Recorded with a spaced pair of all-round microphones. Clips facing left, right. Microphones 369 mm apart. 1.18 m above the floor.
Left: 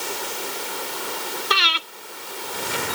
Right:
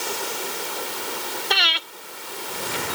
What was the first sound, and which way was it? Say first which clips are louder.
Breathing: right 1 dB; 15° left (ahead or behind).